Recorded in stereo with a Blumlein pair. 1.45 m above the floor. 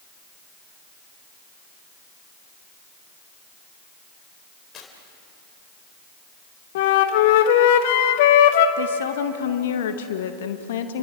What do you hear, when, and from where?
4.7 s tearing paper: 25° left, 4 m
6.8 s a flute: 50° left, 1.3 m
8.8 s a woman speaking: 60° left, 2.0 m